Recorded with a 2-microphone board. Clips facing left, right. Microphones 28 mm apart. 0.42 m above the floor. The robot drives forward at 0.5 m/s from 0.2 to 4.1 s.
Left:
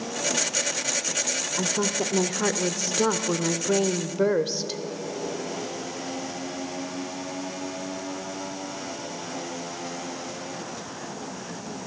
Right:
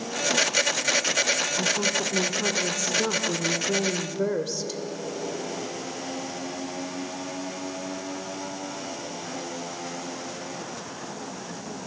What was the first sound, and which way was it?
A woman speaking, 30° left (ahead or behind).